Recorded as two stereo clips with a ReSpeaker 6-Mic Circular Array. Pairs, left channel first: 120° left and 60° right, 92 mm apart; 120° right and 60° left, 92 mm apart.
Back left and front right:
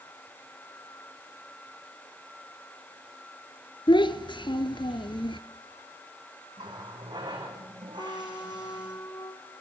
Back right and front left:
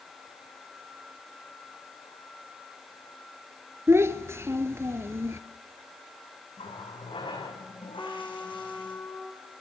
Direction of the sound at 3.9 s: 120° left.